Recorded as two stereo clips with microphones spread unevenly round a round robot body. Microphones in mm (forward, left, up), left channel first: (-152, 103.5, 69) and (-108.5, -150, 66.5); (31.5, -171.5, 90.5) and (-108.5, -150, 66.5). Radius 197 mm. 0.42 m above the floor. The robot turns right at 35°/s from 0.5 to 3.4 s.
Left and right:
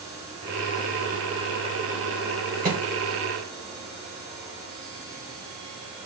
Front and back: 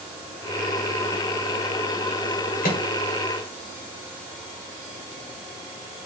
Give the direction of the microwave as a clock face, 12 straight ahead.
1 o'clock.